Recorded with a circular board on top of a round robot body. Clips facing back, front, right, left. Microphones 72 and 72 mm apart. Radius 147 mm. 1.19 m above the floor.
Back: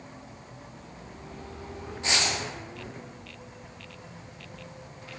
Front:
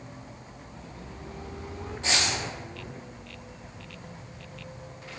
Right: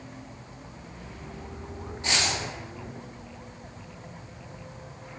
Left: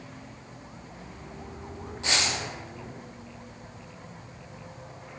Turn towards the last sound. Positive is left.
turn(degrees=95)